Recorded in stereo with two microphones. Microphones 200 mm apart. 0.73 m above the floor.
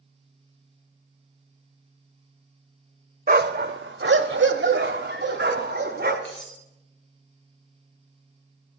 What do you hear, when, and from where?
3.3 s a dog barking: 50° right (ahead or behind), 0.8 m; by 6.2 s 60° right (ahead or behind), 1.9 m
6.2 s cutlery clinking: 70° left (ahead or behind), 3.5 m